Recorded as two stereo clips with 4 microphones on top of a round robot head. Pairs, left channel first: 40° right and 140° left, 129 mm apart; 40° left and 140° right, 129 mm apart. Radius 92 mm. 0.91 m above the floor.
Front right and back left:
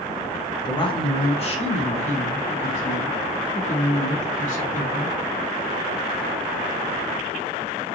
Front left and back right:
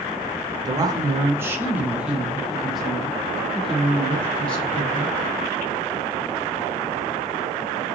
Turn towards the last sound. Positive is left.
turn(degrees=-40)